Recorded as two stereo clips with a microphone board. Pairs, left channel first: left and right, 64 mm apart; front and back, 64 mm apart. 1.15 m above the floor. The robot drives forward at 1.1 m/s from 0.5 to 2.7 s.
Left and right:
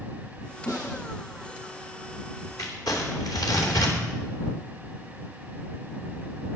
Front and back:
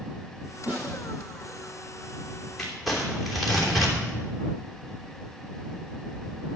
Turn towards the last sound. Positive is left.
turn(degrees=90)